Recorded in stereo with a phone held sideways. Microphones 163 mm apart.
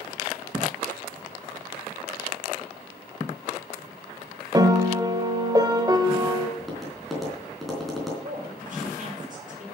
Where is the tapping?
Centre (ahead or behind), 3.5 m.